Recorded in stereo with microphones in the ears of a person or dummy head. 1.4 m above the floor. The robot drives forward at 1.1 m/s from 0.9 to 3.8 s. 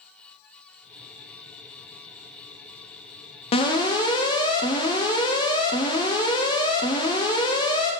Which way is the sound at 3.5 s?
25° left (ahead or behind).